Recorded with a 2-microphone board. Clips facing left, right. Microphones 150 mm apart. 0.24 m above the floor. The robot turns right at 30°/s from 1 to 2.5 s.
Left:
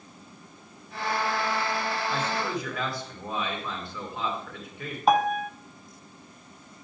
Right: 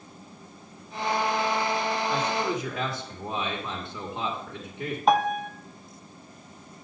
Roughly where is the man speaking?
Centre.